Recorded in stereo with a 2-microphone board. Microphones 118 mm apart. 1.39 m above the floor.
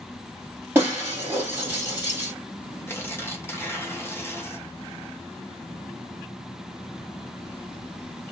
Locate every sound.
0.8 s breaking glass: 15° right (ahead or behind), 2 m
2.9 s tearing paper: 20° left (ahead or behind), 1.0 m